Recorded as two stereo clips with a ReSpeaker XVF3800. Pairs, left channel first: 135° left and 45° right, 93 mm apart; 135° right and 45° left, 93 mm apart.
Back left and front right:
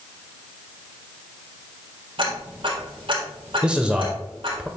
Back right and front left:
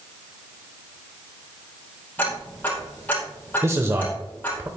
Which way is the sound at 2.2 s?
65° right.